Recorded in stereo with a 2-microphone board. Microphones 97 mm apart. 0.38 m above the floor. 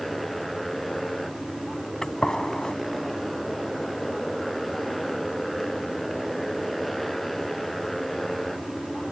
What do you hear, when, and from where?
0.0 s a motorcycle: centre (ahead or behind)
2.0 s a gunshot: 5° left (ahead or behind)